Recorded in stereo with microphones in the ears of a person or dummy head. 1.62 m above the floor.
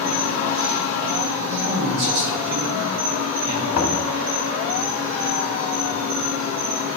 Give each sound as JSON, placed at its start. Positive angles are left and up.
{"t": 0.0, "sound": "an insect", "side_deg": -70, "distance_m": 4.0}
{"t": 1.5, "sound": "a man speaking", "side_deg": -60, "distance_m": 2.5}
{"t": 3.7, "sound": "knocking", "side_deg": 50, "distance_m": 1.3}